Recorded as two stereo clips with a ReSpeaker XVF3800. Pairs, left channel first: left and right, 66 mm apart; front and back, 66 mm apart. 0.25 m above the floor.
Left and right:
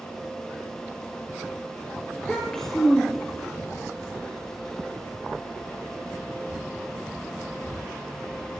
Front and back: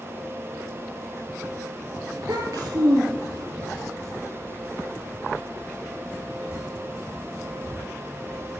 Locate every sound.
2.1 s a child speaking: 170° left, 3 m